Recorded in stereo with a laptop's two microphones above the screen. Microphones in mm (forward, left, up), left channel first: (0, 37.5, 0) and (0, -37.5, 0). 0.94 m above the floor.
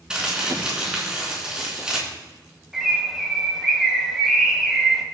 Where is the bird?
5° right (ahead or behind), 1.6 m.